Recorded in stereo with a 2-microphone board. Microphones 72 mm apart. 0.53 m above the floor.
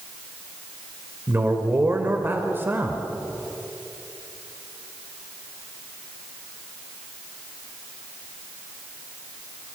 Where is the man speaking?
30° right (ahead or behind), 2 m.